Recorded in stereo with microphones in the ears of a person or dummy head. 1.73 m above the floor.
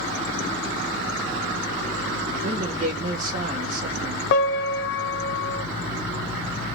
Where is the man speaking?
40° right (ahead or behind), 2 m.